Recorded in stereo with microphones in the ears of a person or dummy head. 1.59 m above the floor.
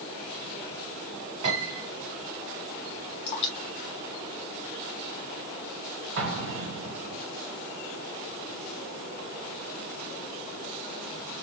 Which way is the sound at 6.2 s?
60° right (ahead or behind).